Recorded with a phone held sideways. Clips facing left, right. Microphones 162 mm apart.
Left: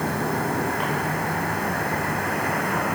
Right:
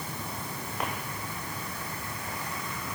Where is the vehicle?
70° left (ahead or behind); by 3.0 s 65° left (ahead or behind).